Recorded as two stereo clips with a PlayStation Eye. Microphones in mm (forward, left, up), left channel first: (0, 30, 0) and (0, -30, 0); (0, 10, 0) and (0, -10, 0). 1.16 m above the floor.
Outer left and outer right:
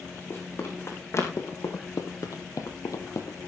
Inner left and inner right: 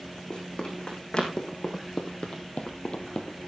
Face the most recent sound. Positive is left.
turn(degrees=60)  # may be behind; listen again after turning